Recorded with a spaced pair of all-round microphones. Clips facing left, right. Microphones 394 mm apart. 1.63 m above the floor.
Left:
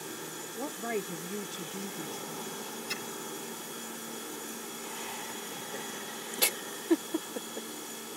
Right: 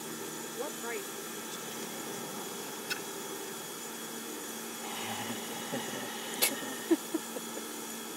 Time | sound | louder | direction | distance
0.6 | a woman speaking | left 5 dB | 45° left (ahead or behind) | ?
2.9 | a splash | left 1 dB | 5° left (ahead or behind) | ?
4.8 | laughter | right 3 dB | 75° right (ahead or behind) | ?